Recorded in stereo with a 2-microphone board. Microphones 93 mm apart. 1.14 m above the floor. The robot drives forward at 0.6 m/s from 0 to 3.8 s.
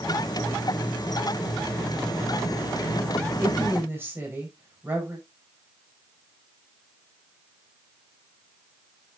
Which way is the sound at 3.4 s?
25° right (ahead or behind).